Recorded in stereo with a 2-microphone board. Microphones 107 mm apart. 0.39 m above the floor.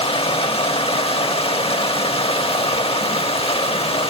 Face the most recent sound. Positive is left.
turn(degrees=65)  # may be behind; listen again after turning